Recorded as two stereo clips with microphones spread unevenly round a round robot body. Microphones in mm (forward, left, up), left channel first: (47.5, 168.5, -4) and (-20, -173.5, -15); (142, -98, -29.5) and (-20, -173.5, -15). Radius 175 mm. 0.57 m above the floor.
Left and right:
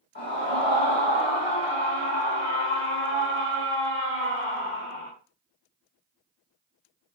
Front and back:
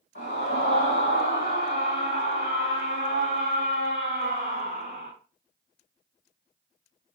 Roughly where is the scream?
Ahead.